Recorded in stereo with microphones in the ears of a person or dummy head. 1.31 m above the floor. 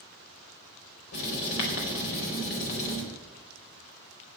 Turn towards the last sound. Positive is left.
turn(degrees=75)  # may be behind; listen again after turning